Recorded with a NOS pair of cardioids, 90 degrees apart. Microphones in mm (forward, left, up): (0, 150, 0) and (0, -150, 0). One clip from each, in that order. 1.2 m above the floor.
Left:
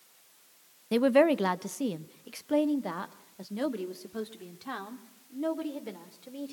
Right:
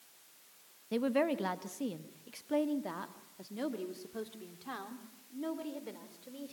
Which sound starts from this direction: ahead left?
A woman speaking, at 0.9 s.